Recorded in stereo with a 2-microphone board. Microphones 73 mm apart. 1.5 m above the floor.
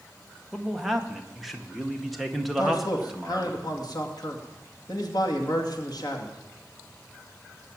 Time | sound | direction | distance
0.5 | a man speaking | centre (ahead or behind) | 1.6 m
2.6 | a man speaking | 60° left (ahead or behind) | 2.5 m